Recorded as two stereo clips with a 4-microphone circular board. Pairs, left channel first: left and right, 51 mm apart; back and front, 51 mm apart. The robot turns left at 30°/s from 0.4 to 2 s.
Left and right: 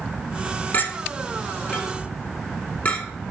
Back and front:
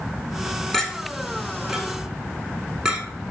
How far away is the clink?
About 1.2 m.